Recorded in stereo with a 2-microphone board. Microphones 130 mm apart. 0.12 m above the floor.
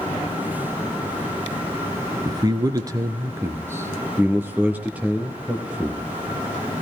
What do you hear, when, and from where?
2.2 s a man speaking: 30° right (ahead or behind), 1.6 m; by 6.1 s 5° right (ahead or behind), 3 m